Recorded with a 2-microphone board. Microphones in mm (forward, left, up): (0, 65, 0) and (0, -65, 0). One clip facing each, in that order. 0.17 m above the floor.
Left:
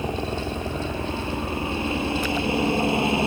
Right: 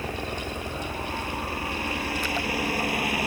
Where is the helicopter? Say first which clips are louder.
Left 5 dB; 20° left (ahead or behind); by 3.3 s 25° left (ahead or behind).